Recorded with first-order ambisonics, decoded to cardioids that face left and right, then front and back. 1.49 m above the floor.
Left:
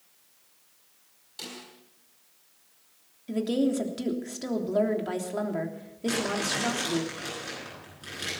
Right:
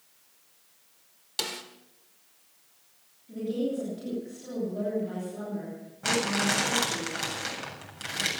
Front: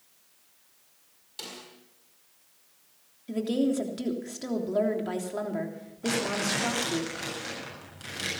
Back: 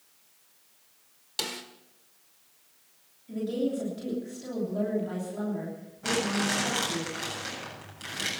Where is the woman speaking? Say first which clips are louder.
Left 4 dB, front 2 dB; 55° left, 3 m.